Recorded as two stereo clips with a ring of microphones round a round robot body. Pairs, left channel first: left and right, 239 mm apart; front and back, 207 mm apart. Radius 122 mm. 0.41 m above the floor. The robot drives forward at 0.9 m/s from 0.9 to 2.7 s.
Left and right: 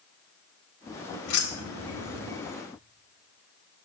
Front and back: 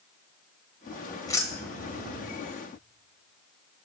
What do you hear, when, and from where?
1.3 s keys jangling: 70° left, 1.6 m; by 2.2 s 105° left, 1.6 m